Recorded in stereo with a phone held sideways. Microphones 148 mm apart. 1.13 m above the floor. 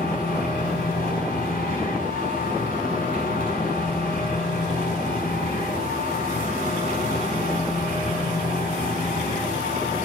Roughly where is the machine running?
Left.